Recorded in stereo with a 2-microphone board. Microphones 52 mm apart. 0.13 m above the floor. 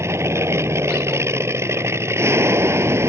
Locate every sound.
0.0 s an aircraft: 60° right (ahead or behind)